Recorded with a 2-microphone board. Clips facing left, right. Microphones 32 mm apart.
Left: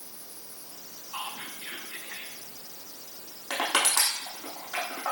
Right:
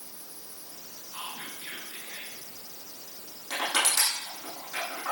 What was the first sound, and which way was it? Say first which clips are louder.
Whispering: left 2 dB; 55° left (ahead or behind).